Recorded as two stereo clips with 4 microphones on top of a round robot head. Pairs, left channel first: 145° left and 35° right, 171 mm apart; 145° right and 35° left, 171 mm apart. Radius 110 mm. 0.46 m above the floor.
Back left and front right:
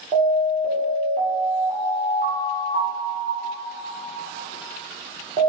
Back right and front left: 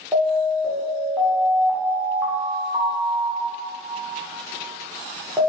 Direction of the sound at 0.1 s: 35° right.